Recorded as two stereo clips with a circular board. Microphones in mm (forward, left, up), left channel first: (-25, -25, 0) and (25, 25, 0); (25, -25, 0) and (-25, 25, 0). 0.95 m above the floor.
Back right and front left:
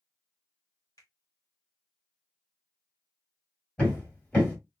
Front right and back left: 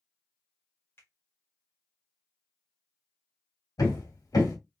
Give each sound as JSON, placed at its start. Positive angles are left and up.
{"t": 1.0, "sound": "a finger snap", "azimuth_deg": -100, "distance_m": 1.7}
{"t": 3.8, "sound": "hammering", "azimuth_deg": -65, "distance_m": 2.5}